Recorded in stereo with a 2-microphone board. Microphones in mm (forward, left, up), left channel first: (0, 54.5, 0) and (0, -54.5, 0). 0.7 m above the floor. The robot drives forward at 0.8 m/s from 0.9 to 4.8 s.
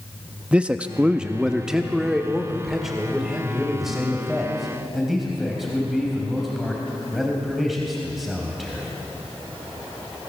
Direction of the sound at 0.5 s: 10° right (ahead or behind).